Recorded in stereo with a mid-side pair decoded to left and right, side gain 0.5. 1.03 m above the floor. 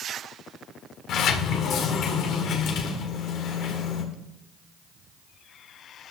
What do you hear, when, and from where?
1.1 s a sliding door: 70° left, 1.8 m